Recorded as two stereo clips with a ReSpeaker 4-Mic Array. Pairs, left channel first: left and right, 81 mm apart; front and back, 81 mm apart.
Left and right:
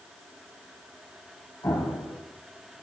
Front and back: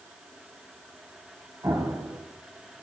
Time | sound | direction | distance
1.6 | an explosion | 135° left | 3 m